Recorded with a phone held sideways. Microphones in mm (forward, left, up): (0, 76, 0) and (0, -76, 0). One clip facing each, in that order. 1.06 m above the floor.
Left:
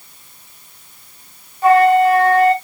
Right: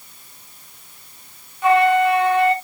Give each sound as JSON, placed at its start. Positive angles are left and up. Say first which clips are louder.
{"t": 1.6, "sound": "a flute", "louder": "left 4 dB", "side_deg": 40, "distance_m": 1.2}